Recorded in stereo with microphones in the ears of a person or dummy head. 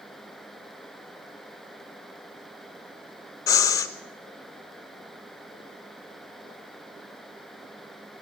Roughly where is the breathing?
Centre.